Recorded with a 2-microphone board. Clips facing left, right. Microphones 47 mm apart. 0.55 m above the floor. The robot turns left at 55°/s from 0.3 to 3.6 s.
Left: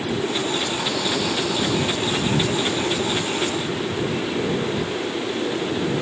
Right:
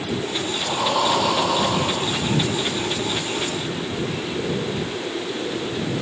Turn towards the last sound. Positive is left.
turn(degrees=145)